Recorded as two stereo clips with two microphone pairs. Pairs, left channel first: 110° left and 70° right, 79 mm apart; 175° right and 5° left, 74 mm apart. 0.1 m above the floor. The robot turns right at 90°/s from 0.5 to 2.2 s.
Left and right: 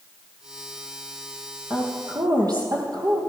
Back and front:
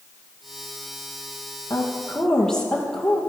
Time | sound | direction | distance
1.7 | a woman speaking | 140° right | 2.5 m